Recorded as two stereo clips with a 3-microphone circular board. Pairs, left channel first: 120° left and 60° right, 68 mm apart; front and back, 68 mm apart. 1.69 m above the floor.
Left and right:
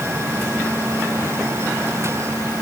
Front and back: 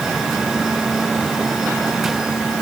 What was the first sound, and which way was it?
Only background noise.